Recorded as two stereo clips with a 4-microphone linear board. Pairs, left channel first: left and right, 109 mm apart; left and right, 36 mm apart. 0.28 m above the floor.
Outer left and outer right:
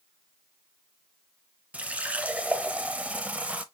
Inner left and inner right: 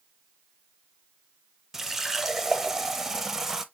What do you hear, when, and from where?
1.7 s a running tap: 10° right (ahead or behind), 0.6 m